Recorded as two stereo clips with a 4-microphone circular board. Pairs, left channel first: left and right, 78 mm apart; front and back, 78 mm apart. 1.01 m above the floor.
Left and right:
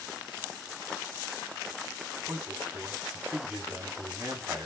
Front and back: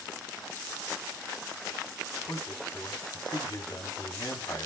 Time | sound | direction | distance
2.3 | a man speaking | 25° right | 3 m